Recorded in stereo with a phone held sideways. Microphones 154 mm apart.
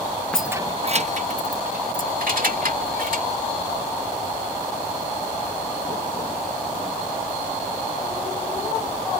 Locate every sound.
0.3 s keys jangling: 5° left (ahead or behind); by 3.3 s 80° right